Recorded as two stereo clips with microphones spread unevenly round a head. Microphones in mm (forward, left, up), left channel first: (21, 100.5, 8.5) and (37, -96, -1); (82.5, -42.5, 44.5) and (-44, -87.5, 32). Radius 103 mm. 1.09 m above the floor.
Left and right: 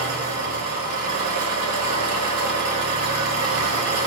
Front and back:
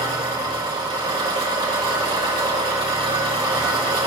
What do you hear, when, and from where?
0.0 s an engine running: 105° right, 4 m